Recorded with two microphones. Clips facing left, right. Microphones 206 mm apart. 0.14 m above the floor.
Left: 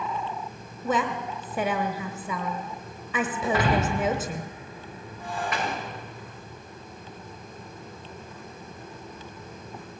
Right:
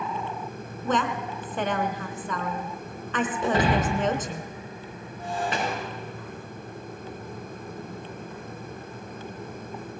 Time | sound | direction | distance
0.8 | a woman speaking | 10° left (ahead or behind) | 1.1 m
3.4 | breaking glass | 30° right (ahead or behind) | 6.5 m